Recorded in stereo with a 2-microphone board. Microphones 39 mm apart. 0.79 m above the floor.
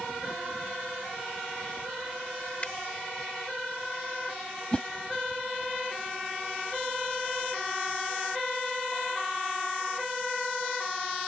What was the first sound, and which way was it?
A finger snap, 30° left (ahead or behind).